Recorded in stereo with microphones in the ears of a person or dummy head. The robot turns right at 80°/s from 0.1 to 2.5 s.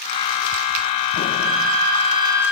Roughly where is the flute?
Right.